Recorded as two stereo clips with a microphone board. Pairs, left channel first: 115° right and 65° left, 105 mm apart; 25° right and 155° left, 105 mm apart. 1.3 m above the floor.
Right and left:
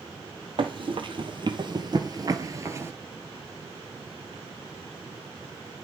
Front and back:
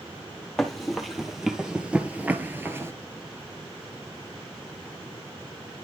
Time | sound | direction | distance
0.6 | running footsteps | 65° left | 2 m